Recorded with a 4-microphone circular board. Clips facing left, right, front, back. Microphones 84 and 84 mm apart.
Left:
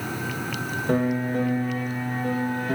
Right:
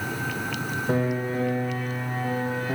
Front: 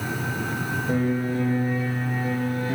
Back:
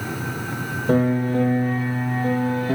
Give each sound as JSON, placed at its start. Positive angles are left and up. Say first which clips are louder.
{"t": 0.9, "sound": "a piano", "louder": "left 3 dB, back 6 dB", "azimuth_deg": -175, "distance_m": 5.0}